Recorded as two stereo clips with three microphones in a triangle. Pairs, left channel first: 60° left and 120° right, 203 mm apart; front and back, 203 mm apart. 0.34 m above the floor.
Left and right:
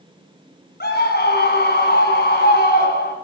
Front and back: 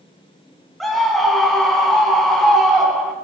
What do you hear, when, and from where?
0.8 s a scream: 90° left, 4 m